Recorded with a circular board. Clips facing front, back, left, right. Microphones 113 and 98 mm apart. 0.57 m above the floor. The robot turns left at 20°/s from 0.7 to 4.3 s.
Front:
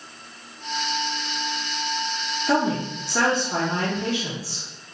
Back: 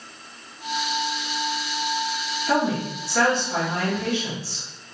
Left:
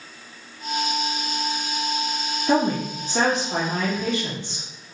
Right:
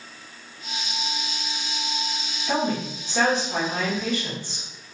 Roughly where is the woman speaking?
Left.